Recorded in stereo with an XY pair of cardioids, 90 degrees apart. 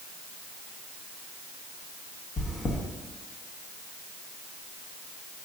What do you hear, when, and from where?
2.4 s chewing: 55° left, 1.5 m